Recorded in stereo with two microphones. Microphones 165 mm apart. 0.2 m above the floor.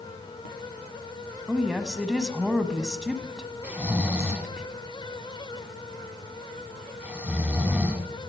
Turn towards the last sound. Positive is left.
turn(degrees=-10)  # may be behind; listen again after turning